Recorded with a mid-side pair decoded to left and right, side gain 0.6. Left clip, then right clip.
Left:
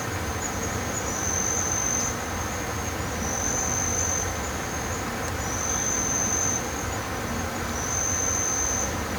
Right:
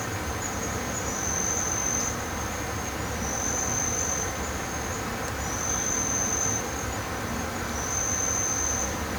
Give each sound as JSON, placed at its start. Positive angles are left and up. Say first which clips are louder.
{"t": 0.0, "sound": "an insect", "louder": "left 1 dB", "azimuth_deg": 15, "distance_m": 1.6}